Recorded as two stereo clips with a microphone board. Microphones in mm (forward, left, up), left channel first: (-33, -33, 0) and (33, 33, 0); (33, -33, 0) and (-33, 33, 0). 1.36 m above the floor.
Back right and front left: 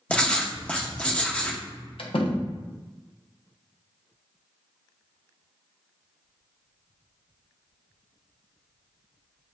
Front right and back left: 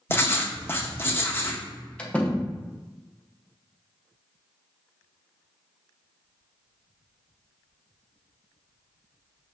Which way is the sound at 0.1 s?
75° right.